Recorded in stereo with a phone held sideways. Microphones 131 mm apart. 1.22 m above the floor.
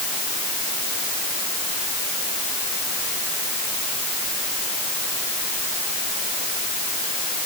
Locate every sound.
Only background noise.